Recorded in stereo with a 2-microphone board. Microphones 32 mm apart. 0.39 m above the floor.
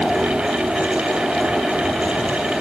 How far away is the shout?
I don't hear a shout.